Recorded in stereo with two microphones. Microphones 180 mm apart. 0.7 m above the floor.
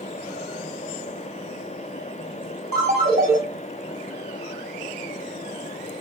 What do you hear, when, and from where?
2.7 s a ringtone: 50° right (ahead or behind), 1.6 m